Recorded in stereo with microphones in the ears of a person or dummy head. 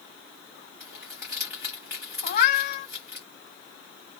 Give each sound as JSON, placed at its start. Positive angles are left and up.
{"t": 0.8, "sound": "crumpling", "side_deg": -15, "distance_m": 1.0}
{"t": 2.2, "sound": "a cat meowing", "side_deg": 50, "distance_m": 0.9}